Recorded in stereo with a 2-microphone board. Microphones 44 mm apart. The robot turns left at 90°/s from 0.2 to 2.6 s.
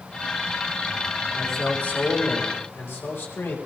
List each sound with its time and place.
1.3 s a man speaking: 170° right, 7.5 m; by 3.6 s 75° left, 7.5 m